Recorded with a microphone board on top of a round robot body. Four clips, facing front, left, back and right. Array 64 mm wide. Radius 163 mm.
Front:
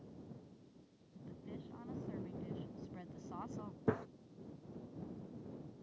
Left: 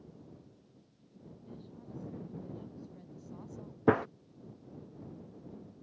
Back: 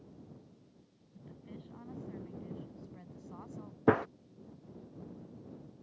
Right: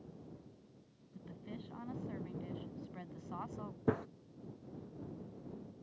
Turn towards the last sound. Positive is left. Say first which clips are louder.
# left 9 dB, back 10 dB
turn(degrees=140)